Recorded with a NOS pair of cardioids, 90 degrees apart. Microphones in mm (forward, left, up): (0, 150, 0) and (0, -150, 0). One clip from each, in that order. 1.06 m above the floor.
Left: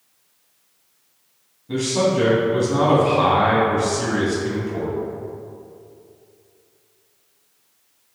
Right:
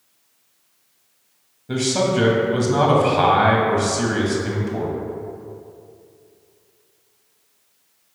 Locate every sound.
1.7 s a man speaking: 40° right, 1.1 m